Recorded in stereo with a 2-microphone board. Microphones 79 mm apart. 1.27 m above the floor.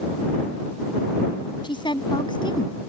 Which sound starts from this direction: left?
A woman speaking, at 1.6 s.